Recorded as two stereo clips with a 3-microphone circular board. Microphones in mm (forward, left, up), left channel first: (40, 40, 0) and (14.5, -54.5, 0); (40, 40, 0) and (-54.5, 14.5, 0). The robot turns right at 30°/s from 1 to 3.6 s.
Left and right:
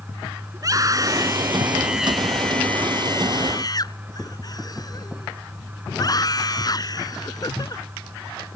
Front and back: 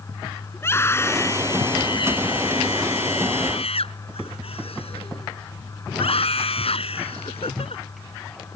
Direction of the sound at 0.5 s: 50° right.